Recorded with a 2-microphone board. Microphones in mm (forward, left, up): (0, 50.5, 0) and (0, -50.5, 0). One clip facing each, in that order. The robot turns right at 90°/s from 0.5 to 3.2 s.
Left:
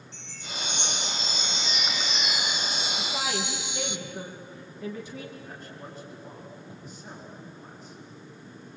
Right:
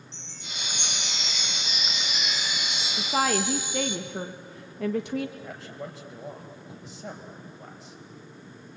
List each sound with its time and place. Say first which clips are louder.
0.1 s a chime: left 4 dB; 155° right, 1.0 m; by 4.0 s 85° left, 1.0 m
3.0 s a woman speaking: right 9 dB; 55° right (ahead or behind), 1.3 m; by 5.3 s 60° right (ahead or behind), 1.3 m
5.4 s a man speaking: right 4 dB; 85° right, 4.5 m